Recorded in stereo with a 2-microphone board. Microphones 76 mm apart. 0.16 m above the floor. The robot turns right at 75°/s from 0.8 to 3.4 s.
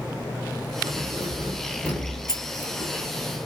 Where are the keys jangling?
55° right (ahead or behind), 2 m; by 3.4 s 45° left (ahead or behind), 2 m.